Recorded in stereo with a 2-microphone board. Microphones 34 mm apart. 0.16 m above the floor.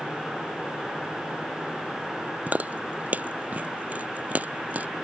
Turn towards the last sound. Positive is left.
turn(degrees=-50)  # may be behind; listen again after turning